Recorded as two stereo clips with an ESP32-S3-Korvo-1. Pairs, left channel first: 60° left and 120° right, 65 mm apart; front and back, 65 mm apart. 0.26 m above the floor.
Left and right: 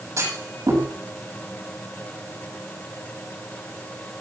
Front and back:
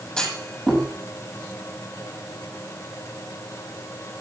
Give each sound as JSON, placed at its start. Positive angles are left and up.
{"t": 0.2, "sound": "a clunk", "azimuth_deg": -75, "distance_m": 9.0}